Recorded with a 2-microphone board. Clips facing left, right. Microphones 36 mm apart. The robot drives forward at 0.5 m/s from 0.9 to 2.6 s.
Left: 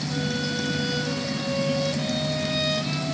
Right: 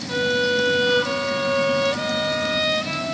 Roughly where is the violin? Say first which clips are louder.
Right 10 dB; right.